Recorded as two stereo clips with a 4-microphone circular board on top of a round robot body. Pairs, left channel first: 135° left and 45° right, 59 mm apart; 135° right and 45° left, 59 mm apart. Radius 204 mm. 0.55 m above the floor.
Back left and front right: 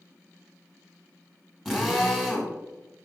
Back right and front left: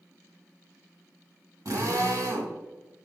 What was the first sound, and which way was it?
A drill, 40° left.